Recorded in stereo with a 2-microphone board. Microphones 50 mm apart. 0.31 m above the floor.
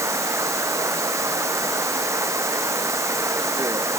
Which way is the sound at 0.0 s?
75° right (ahead or behind).